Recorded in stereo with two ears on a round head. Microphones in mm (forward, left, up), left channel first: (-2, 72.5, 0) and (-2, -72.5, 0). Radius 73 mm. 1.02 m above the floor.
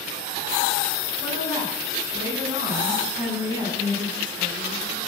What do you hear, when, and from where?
1.2 s a woman speaking: 20° right (ahead or behind), 8 m; by 5.0 s 10° right (ahead or behind), 10.5 m